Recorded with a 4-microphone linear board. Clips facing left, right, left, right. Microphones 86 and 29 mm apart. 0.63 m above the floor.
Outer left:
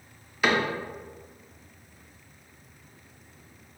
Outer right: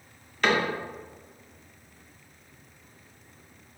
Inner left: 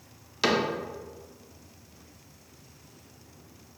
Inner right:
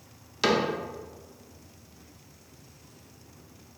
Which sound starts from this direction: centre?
A cupboard door, at 0.4 s.